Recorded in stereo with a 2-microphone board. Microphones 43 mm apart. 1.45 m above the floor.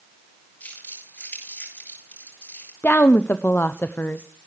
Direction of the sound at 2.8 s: 50° left (ahead or behind).